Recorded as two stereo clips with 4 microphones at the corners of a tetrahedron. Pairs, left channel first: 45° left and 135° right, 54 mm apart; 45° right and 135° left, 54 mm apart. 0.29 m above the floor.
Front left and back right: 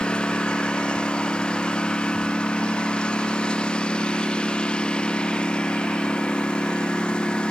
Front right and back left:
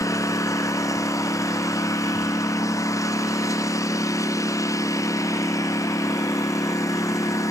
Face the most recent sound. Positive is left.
turn(degrees=-25)